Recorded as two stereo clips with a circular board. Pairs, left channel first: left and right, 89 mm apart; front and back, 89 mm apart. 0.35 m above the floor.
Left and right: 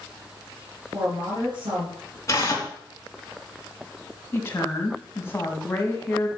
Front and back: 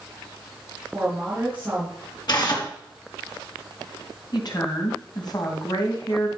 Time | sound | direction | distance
0.9 | a woman speaking | 110° right | 5 m
2.3 | tearing paper | 35° left | 3 m
4.3 | a woman speaking | 30° left | 2.5 m